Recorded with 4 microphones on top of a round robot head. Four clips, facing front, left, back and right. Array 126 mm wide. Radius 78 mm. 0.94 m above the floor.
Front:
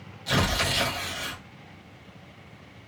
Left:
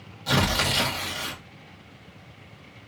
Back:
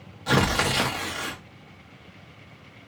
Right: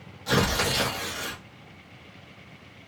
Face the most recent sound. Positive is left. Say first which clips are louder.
# even, back 4 dB
turn(degrees=175)